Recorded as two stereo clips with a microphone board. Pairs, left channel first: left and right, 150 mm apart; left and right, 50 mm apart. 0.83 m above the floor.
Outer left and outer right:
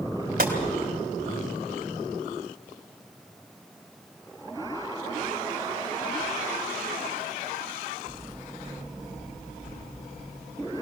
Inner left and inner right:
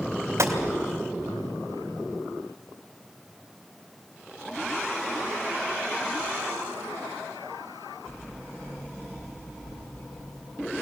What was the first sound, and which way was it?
A gunshot, 80° right.